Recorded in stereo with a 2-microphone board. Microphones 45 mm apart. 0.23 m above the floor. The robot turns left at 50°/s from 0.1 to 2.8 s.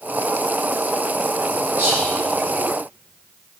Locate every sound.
1.8 s whispering: 30° right (ahead or behind), 1.8 m